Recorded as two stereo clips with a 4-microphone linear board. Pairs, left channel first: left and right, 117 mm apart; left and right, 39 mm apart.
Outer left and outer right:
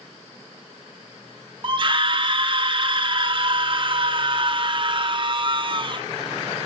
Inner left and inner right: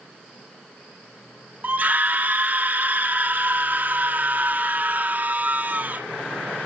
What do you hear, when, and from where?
1.6 s a scream: 45° right (ahead or behind), 1.3 m